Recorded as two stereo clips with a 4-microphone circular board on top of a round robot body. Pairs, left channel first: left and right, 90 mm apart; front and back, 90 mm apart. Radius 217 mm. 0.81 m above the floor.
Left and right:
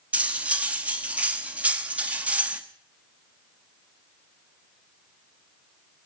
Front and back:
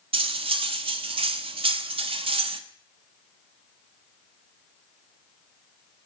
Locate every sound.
0.1 s cutlery clinking: 165° right, 0.9 m